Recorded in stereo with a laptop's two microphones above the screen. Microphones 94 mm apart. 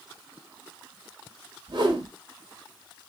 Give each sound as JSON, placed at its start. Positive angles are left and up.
{"t": 1.7, "sound": "a whoosh", "side_deg": -55, "distance_m": 1.0}